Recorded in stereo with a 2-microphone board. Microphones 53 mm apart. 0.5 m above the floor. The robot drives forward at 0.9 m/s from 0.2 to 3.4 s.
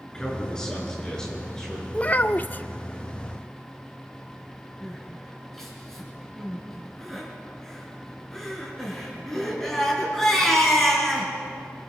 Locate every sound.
0.1 s a man speaking: 15° left (ahead or behind), 8 m; by 1.8 s 10° left (ahead or behind), 9.5 m
1.9 s a child speaking: 25° left (ahead or behind), 0.7 m; by 2.6 s 30° left (ahead or behind), 0.6 m
4.8 s crying: 5° left (ahead or behind), 5.5 m